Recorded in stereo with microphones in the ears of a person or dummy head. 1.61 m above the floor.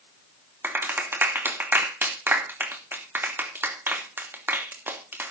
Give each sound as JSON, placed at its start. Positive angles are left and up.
{"t": 0.6, "sound": "a clap", "side_deg": -15, "distance_m": 2.5}